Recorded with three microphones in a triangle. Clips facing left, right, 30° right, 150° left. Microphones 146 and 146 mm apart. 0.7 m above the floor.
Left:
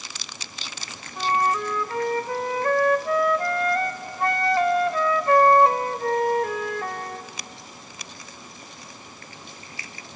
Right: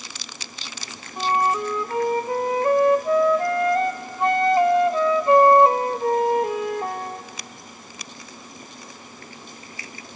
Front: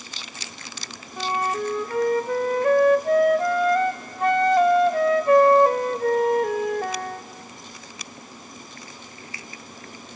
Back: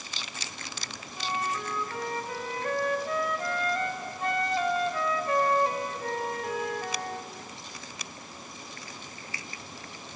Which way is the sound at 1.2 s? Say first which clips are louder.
Right 2 dB, front 8 dB; 25° right.